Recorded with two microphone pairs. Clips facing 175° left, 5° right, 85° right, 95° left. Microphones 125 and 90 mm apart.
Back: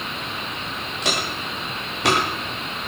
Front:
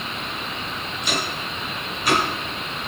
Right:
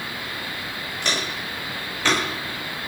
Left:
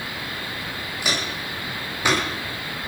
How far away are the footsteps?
About 10 m.